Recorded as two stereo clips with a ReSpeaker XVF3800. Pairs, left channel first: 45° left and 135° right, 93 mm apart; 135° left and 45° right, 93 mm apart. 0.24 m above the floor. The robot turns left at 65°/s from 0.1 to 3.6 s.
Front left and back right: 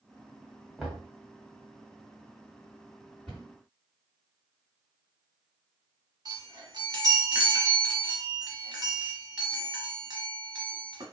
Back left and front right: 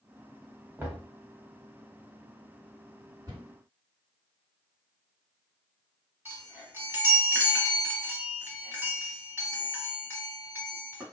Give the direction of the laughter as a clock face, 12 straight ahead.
No laughter in this recording.